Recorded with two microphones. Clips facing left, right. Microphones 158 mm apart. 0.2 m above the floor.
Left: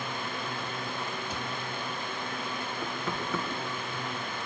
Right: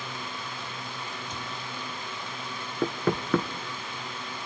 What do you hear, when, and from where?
1.3 s a cupboard door: 10° left (ahead or behind), 3 m
2.8 s knocking: 60° right (ahead or behind), 1.7 m